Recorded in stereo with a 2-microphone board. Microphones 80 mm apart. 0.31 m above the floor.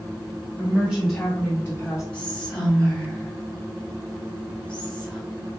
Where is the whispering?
10° left (ahead or behind), 1.0 m.